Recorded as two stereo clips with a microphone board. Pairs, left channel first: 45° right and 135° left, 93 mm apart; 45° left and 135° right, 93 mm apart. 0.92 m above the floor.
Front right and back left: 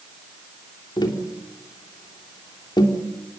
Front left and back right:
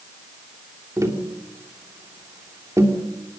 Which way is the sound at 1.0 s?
80° right.